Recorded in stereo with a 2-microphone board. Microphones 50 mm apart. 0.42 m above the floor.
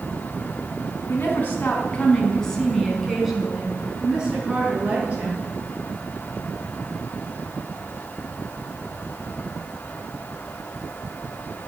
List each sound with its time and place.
1.1 s a woman speaking: 40° left (ahead or behind), 4 m; by 5.5 s 30° right (ahead or behind), 7 m